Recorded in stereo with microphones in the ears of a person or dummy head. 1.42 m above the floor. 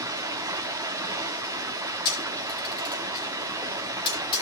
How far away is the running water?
About 1.0 m.